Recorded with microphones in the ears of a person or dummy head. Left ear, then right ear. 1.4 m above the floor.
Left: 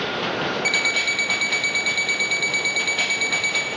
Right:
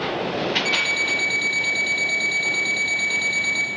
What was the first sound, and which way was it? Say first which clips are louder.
An alarm clock: left 3 dB; 50° left (ahead or behind).